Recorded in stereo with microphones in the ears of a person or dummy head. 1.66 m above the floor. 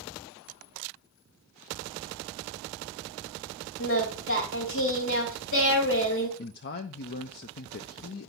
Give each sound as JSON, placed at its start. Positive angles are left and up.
{"t": 3.8, "sound": "singing", "side_deg": 55, "distance_m": 2.5}
{"t": 6.4, "sound": "a man speaking", "side_deg": 45, "distance_m": 0.5}